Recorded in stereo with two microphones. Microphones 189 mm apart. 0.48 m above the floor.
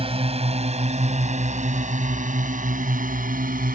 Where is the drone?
30° right (ahead or behind); by 3.8 s 45° right (ahead or behind).